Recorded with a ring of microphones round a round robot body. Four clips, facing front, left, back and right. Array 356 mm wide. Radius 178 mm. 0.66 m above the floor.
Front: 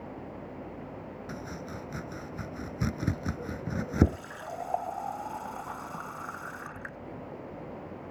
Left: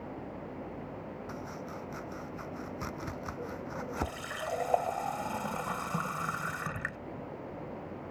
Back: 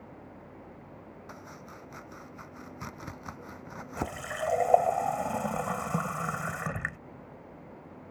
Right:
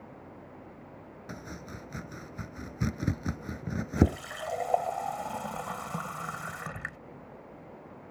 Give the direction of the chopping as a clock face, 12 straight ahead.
2 o'clock.